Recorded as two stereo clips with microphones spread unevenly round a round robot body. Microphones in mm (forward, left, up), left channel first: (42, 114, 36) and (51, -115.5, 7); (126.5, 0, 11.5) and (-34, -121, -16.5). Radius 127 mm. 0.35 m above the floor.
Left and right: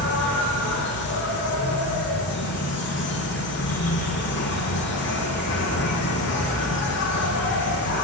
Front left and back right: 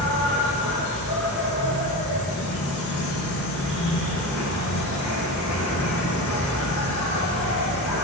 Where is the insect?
55° left, 6 m.